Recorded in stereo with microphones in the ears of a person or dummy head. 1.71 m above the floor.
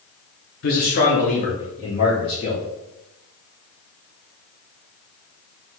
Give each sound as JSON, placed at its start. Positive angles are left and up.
{"t": 0.6, "sound": "a man speaking", "side_deg": 45, "distance_m": 0.9}